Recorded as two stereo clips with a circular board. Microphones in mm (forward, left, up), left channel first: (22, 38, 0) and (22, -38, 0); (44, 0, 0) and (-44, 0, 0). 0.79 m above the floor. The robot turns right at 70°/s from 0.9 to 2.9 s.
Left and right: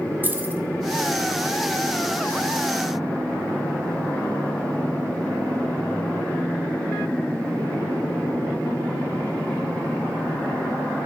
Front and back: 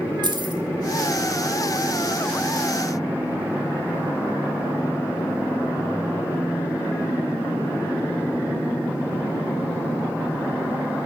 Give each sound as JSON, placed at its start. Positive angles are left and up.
{"t": 0.2, "sound": "keys jangling", "azimuth_deg": -150, "distance_m": 1.1}